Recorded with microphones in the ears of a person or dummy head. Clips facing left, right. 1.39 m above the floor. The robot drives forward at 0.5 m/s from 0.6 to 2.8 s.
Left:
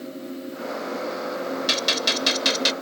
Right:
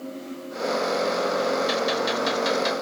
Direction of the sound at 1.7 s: 40° left (ahead or behind).